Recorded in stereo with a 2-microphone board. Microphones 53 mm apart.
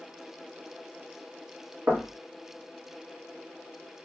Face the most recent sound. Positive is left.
turn(degrees=-40)  # may be behind; listen again after turning